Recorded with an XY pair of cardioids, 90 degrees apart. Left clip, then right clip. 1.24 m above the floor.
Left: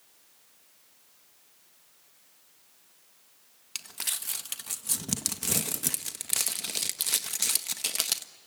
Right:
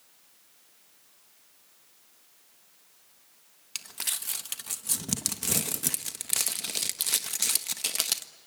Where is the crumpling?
Straight ahead, 1.3 m.